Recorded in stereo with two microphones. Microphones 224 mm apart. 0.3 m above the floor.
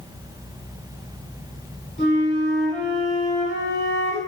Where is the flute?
50° left (ahead or behind), 2.5 m.